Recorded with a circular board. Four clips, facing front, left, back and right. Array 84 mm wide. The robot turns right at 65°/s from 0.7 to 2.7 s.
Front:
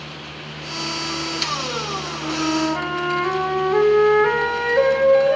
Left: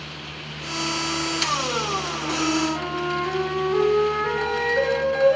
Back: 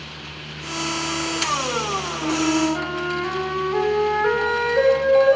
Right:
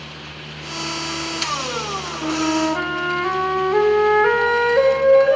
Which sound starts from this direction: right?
A flute, at 2.2 s.